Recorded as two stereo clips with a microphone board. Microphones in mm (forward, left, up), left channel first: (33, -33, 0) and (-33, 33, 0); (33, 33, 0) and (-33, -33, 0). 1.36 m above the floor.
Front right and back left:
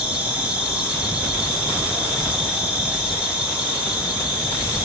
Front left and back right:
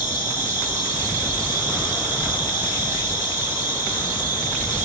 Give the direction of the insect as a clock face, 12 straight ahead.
5 o'clock.